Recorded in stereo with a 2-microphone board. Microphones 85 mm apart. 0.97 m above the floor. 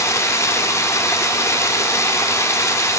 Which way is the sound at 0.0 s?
35° left (ahead or behind).